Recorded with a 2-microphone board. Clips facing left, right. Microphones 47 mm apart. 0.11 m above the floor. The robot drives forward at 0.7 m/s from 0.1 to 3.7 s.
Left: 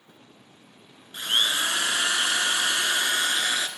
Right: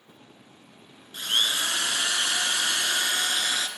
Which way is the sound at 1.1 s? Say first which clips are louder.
Left 1 dB; 15° left (ahead or behind).